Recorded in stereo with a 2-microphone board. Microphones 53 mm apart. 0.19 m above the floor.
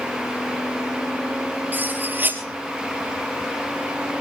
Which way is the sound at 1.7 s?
35° right (ahead or behind).